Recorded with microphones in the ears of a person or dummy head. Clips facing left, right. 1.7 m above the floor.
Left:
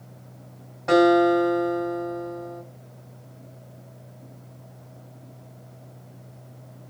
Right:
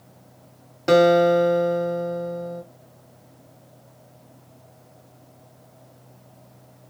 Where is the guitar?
45° right (ahead or behind), 1.0 m.